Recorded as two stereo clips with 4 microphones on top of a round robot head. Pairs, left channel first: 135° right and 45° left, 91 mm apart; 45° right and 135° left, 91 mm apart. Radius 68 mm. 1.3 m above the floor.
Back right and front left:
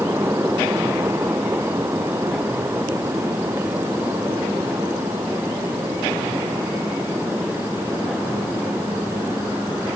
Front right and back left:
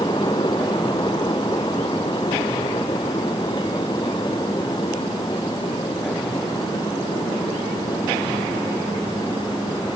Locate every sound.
Only background noise.